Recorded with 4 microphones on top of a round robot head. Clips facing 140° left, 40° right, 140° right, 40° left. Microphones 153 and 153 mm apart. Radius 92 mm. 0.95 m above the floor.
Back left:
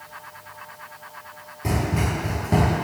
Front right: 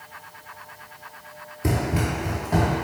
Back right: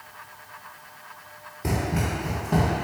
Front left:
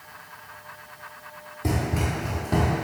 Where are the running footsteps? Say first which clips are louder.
Even, even; 60° right, 1.0 m; by 2.9 s 115° left, 1.1 m.